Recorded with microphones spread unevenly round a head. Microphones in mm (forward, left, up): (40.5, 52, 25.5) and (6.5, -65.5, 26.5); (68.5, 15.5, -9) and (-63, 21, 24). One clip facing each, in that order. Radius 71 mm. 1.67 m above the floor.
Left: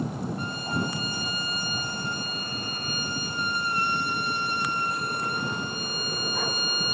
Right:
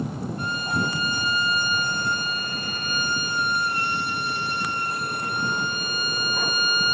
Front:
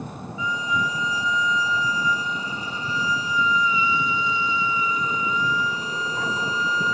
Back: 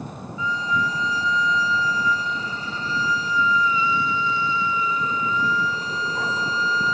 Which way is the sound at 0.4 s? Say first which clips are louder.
Right 6 dB, back 1 dB; 85° right.